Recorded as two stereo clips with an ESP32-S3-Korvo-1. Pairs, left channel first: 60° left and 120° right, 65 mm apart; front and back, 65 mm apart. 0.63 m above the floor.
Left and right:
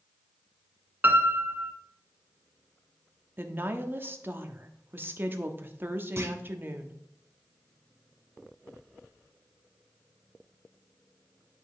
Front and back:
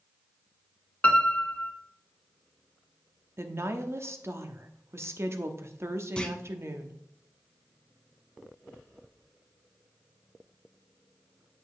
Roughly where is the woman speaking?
Behind.